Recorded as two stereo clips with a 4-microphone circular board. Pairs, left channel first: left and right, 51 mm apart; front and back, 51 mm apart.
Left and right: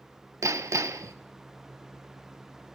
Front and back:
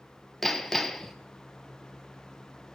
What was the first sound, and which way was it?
Hammering, 85° right.